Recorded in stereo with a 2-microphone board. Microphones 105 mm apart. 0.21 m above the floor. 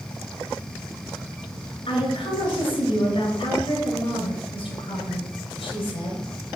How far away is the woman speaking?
About 3 m.